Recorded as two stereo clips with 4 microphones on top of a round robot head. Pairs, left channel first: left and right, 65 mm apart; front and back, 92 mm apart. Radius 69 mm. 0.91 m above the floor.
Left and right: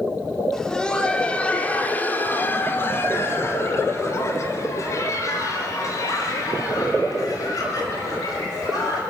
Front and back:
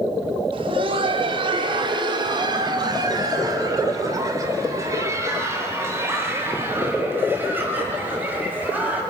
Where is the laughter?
170° left, 3.5 m; by 9.0 s 105° left, 7.5 m.